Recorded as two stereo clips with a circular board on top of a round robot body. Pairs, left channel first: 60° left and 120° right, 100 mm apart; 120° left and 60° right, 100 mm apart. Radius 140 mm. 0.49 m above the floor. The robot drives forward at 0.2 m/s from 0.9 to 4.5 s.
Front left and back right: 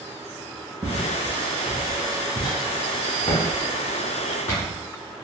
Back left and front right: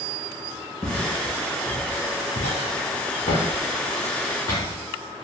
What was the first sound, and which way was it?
Footsteps, 170° left.